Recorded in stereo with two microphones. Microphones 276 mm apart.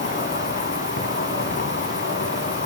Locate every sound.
0.0 s an insect: 40° left (ahead or behind), 0.8 m